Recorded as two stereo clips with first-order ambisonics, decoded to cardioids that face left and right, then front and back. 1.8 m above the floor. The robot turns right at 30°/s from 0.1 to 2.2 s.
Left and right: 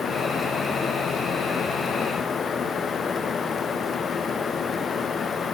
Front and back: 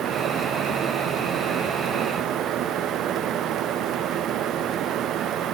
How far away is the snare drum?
No snare drum in this recording.